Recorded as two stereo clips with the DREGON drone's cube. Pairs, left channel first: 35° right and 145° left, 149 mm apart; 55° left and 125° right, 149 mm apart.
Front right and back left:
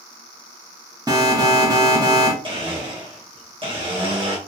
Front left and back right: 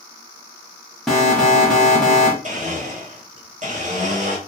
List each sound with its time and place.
1.1 s an alarm: 140° left, 0.9 m
2.4 s a blender: 160° right, 1.1 m